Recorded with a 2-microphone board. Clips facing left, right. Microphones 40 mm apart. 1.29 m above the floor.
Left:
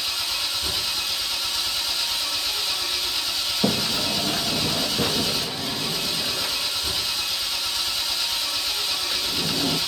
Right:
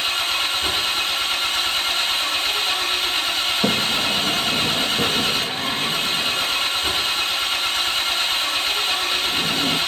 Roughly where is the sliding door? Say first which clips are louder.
Right 1 dB; centre.